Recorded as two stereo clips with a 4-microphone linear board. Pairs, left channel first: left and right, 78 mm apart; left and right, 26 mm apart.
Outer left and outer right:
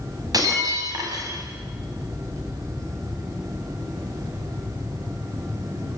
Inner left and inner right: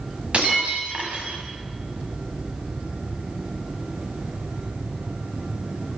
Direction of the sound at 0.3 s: 50° right (ahead or behind).